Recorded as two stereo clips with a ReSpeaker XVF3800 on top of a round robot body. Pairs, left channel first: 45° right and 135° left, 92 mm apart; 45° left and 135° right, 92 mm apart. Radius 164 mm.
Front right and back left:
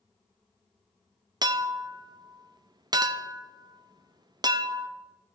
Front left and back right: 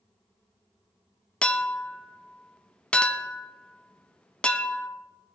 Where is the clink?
120° left, 0.7 m.